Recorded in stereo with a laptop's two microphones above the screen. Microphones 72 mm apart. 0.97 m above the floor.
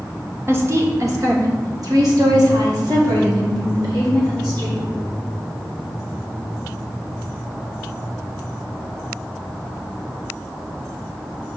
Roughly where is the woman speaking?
Right.